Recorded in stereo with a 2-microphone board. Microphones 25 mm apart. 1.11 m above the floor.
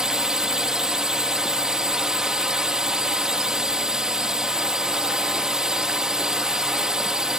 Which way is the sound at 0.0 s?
30° right (ahead or behind).